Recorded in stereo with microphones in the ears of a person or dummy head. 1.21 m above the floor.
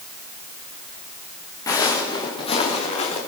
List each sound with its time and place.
1.7 s footsteps: 15° left (ahead or behind), 7 m; by 3.2 s 30° left (ahead or behind), 7 m